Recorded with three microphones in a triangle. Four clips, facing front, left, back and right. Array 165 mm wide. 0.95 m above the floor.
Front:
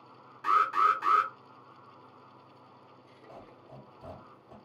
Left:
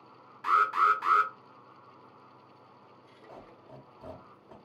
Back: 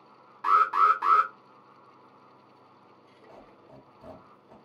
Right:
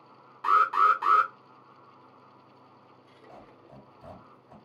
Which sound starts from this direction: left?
A squeak, at 3.3 s.